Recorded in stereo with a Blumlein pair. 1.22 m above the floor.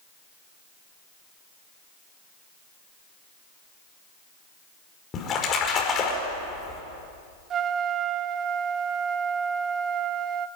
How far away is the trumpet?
About 0.7 m.